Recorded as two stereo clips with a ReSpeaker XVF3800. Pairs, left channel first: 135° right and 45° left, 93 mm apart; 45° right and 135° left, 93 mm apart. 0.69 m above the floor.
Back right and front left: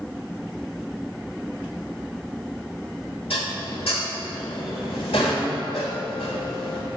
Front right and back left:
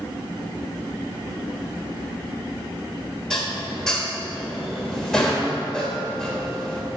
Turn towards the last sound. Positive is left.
turn(degrees=-130)